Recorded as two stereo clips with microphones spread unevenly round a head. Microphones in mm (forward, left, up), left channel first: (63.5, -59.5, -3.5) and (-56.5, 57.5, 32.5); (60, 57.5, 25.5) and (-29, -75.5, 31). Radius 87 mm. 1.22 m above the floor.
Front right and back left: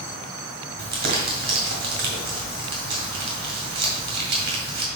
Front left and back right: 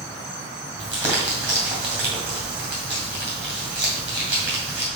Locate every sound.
0.8 s crumpling: 155° left, 2 m